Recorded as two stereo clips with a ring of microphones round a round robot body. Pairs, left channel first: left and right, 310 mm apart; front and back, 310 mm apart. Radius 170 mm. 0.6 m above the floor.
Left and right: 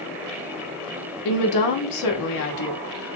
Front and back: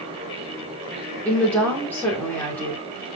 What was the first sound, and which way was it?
A woman speaking, 85° left.